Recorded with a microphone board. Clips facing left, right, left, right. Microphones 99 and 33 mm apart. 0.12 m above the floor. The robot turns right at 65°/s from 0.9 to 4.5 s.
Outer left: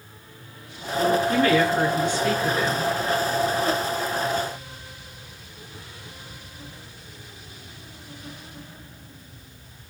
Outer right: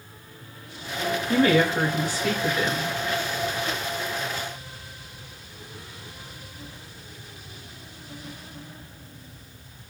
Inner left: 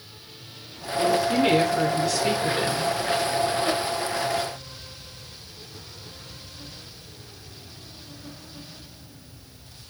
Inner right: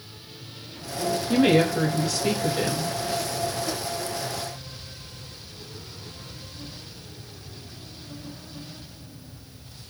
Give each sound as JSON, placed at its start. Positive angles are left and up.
{"t": 1.3, "sound": "a woman speaking", "azimuth_deg": -70, "distance_m": 1.5}